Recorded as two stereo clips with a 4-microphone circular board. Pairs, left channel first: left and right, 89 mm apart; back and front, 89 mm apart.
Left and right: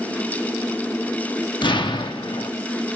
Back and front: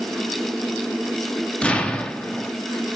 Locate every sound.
1.6 s an explosion: 105° left, 1.0 m